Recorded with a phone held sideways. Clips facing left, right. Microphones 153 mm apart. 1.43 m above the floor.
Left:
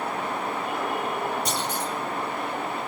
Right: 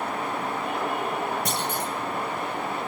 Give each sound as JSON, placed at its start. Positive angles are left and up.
{"t": 1.4, "sound": "a clunk", "side_deg": -55, "distance_m": 1.9}